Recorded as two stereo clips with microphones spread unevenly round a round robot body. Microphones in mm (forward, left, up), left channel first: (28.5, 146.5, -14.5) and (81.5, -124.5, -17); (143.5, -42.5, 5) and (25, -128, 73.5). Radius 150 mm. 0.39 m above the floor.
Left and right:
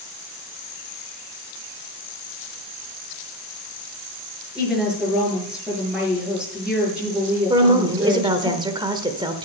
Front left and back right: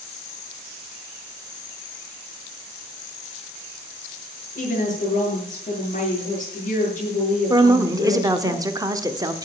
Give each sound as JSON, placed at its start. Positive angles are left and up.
{"t": 4.5, "sound": "a woman speaking", "azimuth_deg": 10, "distance_m": 6.5}
{"t": 7.5, "sound": "a woman speaking", "azimuth_deg": -40, "distance_m": 1.1}